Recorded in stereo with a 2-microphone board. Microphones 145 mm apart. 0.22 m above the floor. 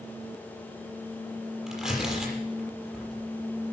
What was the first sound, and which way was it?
Tearing paper, 5° right (ahead or behind).